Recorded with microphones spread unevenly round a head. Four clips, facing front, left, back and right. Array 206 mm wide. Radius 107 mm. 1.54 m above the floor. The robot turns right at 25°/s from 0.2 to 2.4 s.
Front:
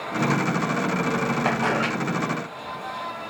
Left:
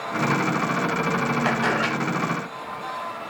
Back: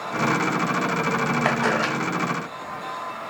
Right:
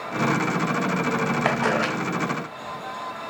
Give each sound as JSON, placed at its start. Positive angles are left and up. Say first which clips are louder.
{"t": 1.4, "sound": "a camera shutter", "louder": "even, back 1 dB", "azimuth_deg": -130, "distance_m": 3.0}